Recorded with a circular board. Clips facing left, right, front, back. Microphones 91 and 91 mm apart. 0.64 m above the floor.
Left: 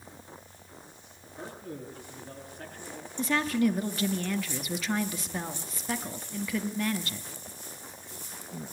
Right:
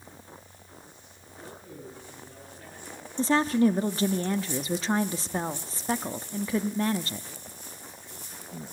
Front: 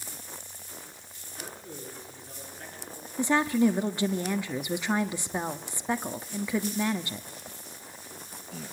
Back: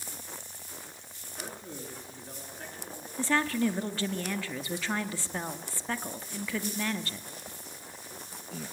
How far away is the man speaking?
About 10 m.